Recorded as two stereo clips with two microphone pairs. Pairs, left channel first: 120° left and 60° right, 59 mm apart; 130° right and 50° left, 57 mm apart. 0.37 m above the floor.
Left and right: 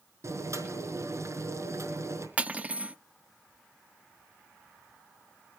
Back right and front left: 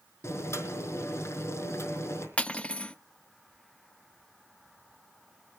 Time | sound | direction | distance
0.2 | boiling | 95° right | 4.5 m
2.4 | cutlery clinking | 90° right | 0.5 m